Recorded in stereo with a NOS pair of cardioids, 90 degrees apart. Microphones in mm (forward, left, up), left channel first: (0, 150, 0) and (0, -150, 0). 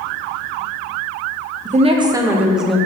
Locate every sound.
1.6 s a woman speaking: 25° right, 0.9 m; by 2.8 s straight ahead, 1.4 m